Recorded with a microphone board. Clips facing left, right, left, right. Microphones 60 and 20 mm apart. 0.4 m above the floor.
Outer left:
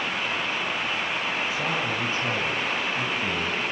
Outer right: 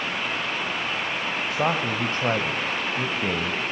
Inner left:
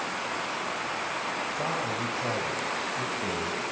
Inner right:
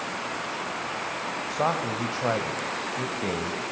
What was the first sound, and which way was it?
A man speaking, 55° right (ahead or behind).